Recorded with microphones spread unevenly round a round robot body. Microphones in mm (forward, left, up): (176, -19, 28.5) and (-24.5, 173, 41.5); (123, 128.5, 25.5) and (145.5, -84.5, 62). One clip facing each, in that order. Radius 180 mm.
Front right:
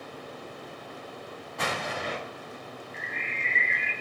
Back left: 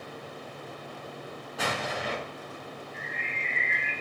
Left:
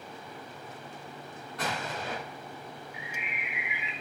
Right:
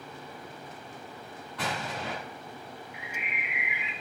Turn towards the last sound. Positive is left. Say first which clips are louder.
# even, right 1 dB
turn(degrees=-50)